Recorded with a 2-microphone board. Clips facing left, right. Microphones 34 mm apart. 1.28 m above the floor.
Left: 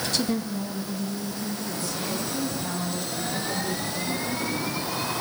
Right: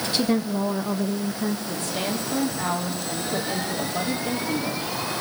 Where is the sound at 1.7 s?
45° right (ahead or behind), 3.5 m.